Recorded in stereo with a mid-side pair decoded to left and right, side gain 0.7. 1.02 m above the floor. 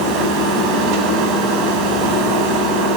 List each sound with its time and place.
0.0 s a machine running: 70° right, 9 m